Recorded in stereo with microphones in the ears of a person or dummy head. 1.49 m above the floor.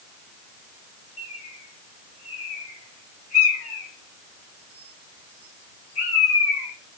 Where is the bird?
35° left (ahead or behind), 0.6 m.